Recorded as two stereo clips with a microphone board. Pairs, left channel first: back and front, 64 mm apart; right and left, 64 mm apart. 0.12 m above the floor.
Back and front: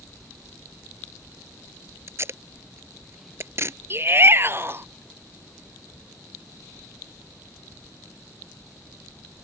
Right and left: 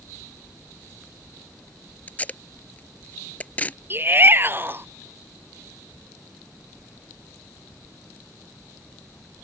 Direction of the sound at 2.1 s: 30° right.